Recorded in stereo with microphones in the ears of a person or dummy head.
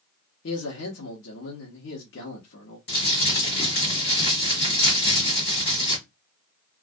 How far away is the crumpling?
About 1.5 m.